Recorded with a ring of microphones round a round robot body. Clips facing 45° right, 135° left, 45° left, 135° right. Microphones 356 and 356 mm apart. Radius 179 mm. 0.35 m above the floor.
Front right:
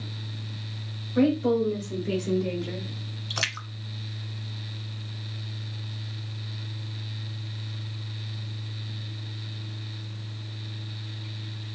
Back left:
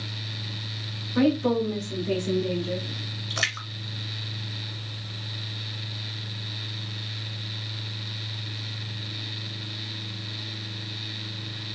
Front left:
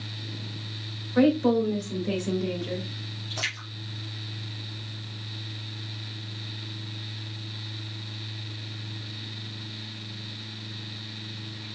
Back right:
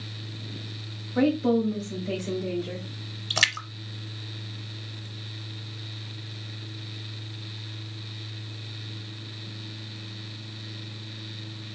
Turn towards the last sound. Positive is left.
turn(degrees=-130)